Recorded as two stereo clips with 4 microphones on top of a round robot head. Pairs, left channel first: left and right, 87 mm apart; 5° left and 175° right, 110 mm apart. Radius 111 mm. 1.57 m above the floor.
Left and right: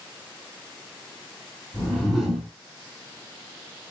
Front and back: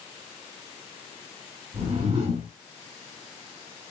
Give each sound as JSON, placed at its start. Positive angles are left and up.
{"t": 1.7, "sound": "a whoosh", "azimuth_deg": 155, "distance_m": 1.7}